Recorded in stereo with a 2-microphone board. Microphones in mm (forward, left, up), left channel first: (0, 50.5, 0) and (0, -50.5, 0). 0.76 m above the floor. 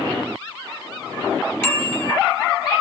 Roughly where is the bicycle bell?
Centre.